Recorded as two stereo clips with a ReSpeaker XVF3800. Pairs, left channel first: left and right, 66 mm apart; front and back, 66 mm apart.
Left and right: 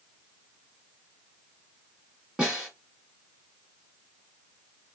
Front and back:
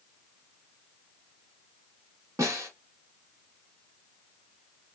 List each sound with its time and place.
2.4 s a snare drum: 160° right, 1.3 m